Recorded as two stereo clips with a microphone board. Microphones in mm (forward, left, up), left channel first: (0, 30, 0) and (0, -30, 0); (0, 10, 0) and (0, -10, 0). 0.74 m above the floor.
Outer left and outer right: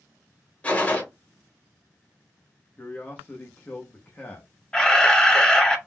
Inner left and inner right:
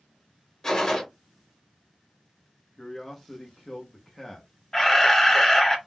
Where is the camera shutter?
15° left (ahead or behind), 0.6 m.